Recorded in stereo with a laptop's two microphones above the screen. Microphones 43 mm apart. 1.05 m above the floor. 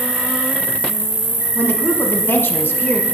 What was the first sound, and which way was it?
An insect, 35° right (ahead or behind).